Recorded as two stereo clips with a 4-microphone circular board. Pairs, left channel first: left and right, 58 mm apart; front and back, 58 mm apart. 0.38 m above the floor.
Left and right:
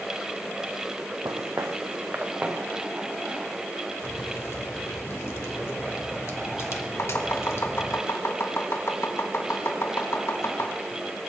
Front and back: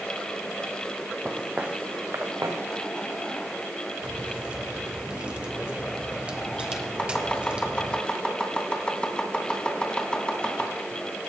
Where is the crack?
110° left, 1.7 m.